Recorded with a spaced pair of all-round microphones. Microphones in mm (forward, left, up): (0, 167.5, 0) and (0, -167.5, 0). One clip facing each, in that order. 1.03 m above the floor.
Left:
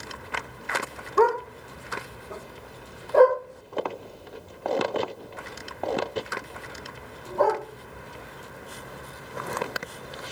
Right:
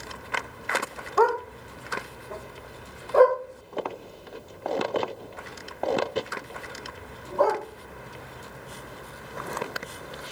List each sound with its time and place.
1.2 s a dog barking: 30° left (ahead or behind), 0.7 m; by 7.6 s 20° right (ahead or behind), 3.5 m